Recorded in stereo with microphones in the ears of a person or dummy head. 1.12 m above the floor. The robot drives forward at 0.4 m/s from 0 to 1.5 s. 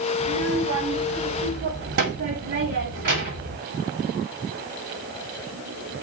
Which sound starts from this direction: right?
A child speaking, at 0.2 s.